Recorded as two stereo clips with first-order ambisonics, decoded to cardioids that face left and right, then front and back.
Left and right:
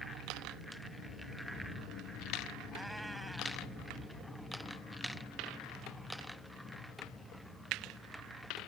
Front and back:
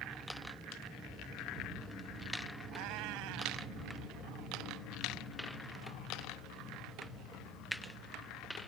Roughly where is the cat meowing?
Behind.